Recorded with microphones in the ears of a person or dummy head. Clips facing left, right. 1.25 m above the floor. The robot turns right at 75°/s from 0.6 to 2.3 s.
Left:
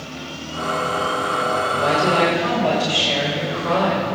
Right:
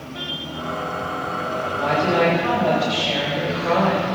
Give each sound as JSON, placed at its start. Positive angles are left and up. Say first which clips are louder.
{"t": 1.7, "sound": "a woman speaking", "louder": "right 1 dB", "azimuth_deg": 90, "distance_m": 5.0}